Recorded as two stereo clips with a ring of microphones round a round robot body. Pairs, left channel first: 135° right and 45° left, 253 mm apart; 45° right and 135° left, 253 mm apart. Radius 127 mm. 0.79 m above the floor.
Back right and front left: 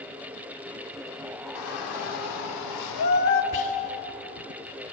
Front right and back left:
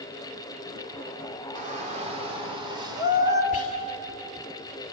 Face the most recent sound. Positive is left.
turn(degrees=-105)